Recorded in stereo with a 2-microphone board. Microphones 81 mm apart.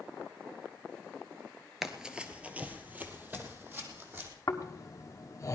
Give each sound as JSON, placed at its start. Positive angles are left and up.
{"t": 1.8, "sound": "running footsteps", "side_deg": -5, "distance_m": 1.3}
{"t": 4.5, "sound": "snoring", "side_deg": 45, "distance_m": 1.3}